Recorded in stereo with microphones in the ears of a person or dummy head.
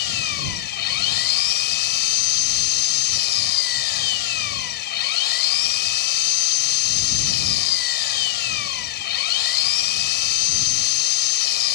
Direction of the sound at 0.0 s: 55° left (ahead or behind).